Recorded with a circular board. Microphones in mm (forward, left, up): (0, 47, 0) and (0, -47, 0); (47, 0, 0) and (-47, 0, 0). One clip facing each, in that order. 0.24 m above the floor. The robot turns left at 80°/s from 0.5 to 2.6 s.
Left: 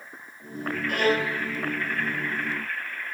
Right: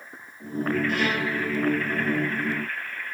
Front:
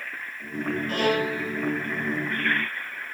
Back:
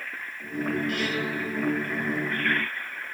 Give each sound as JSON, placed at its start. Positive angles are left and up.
{"t": 0.9, "sound": "a violin", "azimuth_deg": 55, "distance_m": 1.1}